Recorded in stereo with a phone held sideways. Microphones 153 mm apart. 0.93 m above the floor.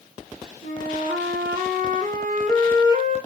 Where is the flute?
60° right (ahead or behind), 1.3 m.